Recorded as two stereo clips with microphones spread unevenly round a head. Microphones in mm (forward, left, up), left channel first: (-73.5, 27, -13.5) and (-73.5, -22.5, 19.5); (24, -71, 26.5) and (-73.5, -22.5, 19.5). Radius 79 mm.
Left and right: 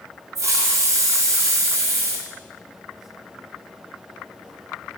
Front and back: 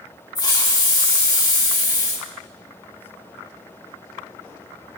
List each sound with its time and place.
0.3 s a hiss: 80° right, 2 m